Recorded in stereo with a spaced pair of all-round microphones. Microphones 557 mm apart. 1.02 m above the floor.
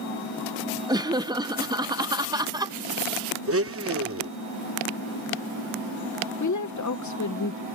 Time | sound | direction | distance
0.9 | laughter | 10° right (ahead or behind) | ?
3.5 | a blender | 25° right (ahead or behind) | ?
6.4 | a woman speaking | 35° left (ahead or behind) | ?